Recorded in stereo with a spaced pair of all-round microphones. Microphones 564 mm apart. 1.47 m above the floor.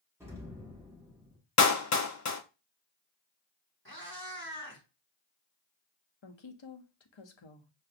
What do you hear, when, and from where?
0.2 s an explosion: 5° right (ahead or behind), 1.1 m
1.6 s a clap: 30° left (ahead or behind), 0.5 m
3.9 s a cat meowing: 20° left (ahead or behind), 1.4 m
6.2 s a woman speaking: 55° left (ahead or behind), 0.7 m